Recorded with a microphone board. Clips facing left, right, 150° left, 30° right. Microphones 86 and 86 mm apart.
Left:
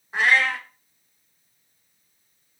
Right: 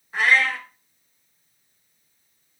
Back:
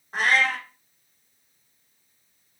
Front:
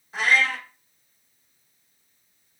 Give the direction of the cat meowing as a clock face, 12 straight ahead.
7 o'clock.